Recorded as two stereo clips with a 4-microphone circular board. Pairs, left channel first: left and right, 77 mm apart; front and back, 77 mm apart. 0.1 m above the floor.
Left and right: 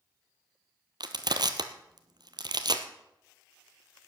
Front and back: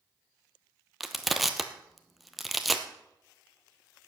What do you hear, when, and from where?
1.0 s crushing: 90° right, 1.0 m